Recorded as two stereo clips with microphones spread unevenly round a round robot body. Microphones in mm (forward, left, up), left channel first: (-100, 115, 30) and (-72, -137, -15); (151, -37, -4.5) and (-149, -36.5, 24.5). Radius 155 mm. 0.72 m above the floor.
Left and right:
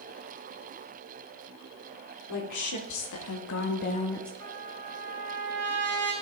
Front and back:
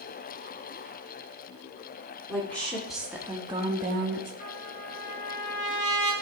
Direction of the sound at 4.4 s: 20° left.